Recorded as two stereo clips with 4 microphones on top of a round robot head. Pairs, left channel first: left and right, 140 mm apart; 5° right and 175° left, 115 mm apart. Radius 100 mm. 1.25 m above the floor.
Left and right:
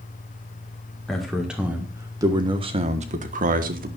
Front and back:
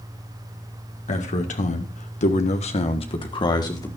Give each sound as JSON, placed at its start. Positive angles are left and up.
{"t": 1.1, "sound": "a man speaking", "azimuth_deg": 5, "distance_m": 1.9}